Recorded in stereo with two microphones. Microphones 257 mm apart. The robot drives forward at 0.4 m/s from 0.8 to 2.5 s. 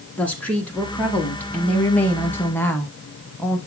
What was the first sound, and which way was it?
A woman speaking, 5° left (ahead or behind).